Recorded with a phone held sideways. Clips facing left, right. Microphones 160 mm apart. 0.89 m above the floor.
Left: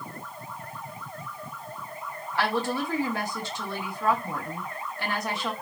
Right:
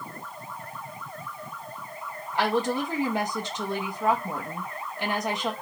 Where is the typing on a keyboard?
I don't hear typing on a keyboard.